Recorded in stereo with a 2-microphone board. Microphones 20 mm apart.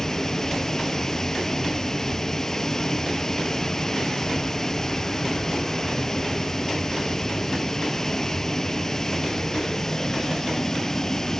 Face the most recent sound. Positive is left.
turn(degrees=25)  # may be behind; listen again after turning